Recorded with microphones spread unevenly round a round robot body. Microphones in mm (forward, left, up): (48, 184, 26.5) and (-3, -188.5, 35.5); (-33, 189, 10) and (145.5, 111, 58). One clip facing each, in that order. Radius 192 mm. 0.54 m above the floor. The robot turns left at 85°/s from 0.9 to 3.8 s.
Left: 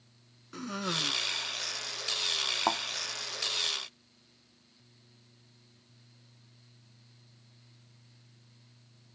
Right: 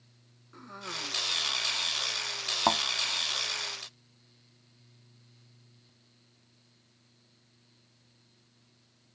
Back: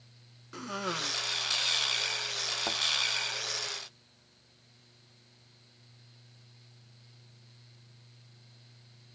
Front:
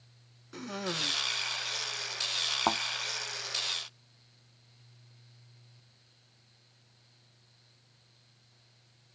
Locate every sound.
0.5 s a cough: 55° left; by 1.2 s 25° left
2.7 s a thud: 50° right; by 2.8 s 65° right